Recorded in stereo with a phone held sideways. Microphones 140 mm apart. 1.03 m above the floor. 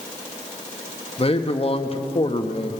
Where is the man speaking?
45° left (ahead or behind), 1.0 m.